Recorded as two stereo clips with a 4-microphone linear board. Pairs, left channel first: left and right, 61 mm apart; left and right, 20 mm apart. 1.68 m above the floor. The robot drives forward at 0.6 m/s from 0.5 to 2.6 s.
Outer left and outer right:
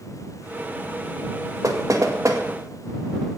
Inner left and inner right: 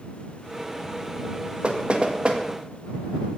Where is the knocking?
60° right (ahead or behind), 1.8 m; by 2.4 s 50° right (ahead or behind), 2 m.